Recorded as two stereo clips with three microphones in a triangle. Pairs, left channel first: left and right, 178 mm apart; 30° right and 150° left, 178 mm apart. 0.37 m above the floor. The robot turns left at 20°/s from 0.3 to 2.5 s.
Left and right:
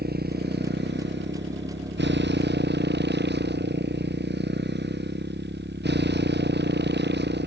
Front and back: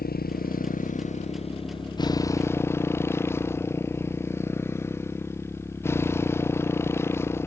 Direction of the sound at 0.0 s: 65° right.